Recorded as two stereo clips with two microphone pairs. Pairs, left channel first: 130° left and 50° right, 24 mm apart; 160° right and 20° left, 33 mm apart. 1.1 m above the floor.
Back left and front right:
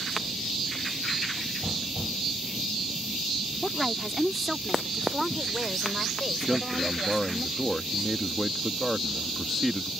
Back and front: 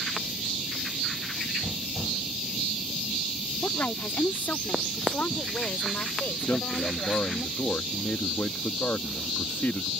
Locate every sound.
3.6 s a woman speaking: 140° right; by 7.5 s 130° right
6.5 s a man speaking: 145° right